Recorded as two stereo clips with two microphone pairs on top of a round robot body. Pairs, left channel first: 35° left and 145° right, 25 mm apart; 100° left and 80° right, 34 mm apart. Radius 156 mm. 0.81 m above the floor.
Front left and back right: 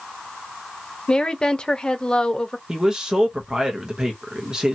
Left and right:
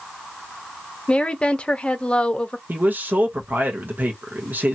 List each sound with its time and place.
1.1 s a woman speaking: 65° left, 1.0 m
2.7 s a man speaking: 90° right, 1.0 m